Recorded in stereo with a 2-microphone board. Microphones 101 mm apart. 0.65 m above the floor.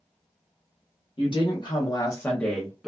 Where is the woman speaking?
55° left (ahead or behind), 0.9 m; by 2.9 s 5° right (ahead or behind), 0.7 m.